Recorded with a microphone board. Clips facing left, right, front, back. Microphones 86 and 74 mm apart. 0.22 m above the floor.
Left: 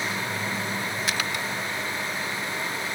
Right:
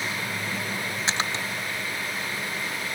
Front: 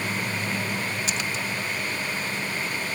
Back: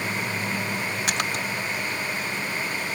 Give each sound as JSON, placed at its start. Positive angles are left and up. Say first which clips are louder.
{"t": 1.1, "sound": "a splash", "louder": "right 3 dB, back 2 dB", "azimuth_deg": -150}